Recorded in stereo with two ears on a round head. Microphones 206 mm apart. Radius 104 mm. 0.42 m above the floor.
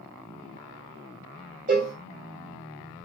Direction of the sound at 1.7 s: 40° right (ahead or behind).